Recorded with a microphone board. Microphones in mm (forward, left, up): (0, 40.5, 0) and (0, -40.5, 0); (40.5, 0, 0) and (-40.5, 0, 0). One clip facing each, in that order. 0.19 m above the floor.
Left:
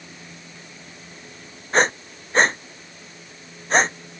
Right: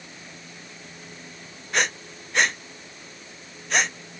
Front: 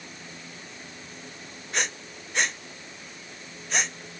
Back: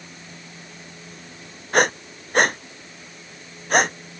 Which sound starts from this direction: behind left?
Breathing, at 1.7 s.